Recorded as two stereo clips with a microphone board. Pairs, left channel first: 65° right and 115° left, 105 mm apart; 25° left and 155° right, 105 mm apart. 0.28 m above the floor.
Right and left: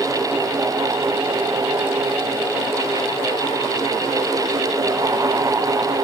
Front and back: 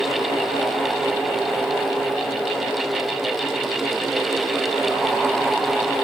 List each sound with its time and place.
Only background noise.